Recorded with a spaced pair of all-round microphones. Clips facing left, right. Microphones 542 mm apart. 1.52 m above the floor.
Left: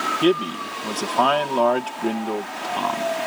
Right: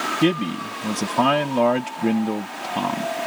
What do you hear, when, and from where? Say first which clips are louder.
0.2 s a man speaking: left 1 dB; 45° right (ahead or behind)